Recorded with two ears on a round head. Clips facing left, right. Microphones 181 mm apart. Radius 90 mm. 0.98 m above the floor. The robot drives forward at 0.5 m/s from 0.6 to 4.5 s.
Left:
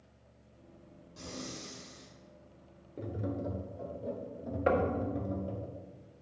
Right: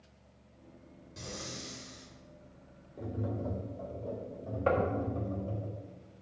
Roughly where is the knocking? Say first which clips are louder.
Left 1 dB; centre.